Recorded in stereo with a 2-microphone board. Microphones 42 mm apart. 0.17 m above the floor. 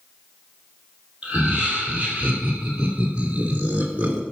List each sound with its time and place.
1.2 s laughter: 25° right (ahead or behind), 4.5 m; by 4.2 s 35° right (ahead or behind), 1.8 m